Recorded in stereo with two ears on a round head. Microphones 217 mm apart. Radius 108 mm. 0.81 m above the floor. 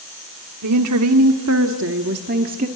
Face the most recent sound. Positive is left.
turn(degrees=-35)  # may be behind; listen again after turning